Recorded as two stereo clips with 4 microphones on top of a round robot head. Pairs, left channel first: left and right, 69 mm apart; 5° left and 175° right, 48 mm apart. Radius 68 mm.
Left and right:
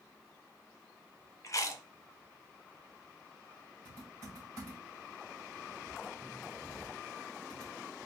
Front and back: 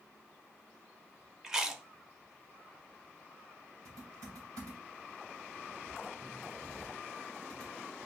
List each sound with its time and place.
1.4 s chewing: 110° left, 0.7 m
3.9 s typing on a keyboard: 145° right, 2 m